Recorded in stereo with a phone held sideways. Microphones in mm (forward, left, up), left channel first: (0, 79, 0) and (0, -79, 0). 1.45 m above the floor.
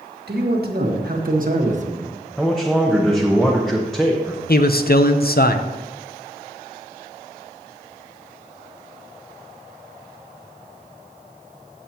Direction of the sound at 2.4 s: 5° left (ahead or behind).